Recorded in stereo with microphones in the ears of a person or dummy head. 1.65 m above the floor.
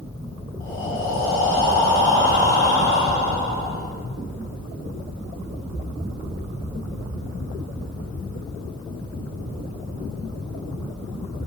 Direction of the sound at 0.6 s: 15° left (ahead or behind).